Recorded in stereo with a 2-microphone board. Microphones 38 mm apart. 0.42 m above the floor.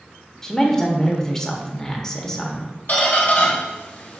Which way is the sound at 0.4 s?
15° left (ahead or behind).